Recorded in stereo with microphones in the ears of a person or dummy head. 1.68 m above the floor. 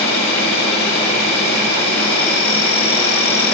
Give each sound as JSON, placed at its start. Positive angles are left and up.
{"t": 0.0, "sound": "an insect", "side_deg": 45, "distance_m": 2.5}